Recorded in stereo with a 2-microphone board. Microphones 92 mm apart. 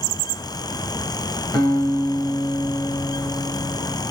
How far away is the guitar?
About 1.6 m.